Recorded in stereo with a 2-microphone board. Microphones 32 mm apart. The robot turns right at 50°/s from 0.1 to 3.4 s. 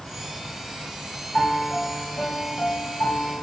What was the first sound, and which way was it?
A piano, 15° left.